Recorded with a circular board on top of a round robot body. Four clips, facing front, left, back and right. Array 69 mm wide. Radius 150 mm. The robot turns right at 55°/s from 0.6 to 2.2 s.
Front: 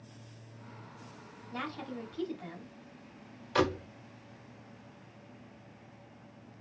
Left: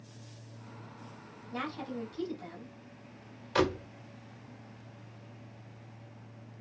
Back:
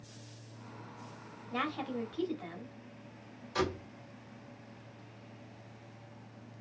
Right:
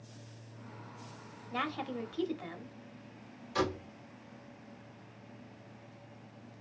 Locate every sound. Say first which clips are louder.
1.5 s a woman speaking: right 1 dB, back 4 dB; 135° right, 1.8 m; by 3.5 s 95° right, 1.8 m
3.5 s a door slam: left 4 dB, front 5 dB; 45° left, 1.4 m